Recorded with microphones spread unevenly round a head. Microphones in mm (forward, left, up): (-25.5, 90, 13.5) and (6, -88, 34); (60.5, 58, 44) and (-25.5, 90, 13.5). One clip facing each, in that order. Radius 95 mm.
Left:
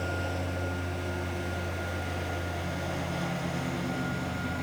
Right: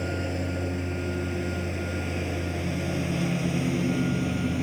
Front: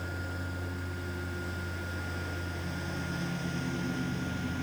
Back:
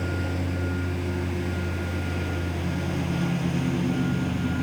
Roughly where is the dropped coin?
I don't hear a dropped coin.